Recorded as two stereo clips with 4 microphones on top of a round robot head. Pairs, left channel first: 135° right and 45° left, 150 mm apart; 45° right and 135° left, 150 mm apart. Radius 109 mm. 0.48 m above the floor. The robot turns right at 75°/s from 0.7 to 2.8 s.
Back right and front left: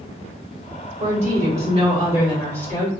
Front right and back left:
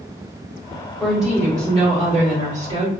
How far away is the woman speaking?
About 1.8 m.